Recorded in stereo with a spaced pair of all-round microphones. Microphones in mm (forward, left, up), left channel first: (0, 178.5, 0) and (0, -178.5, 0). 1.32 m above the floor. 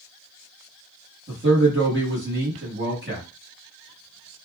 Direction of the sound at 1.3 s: 30° right (ahead or behind).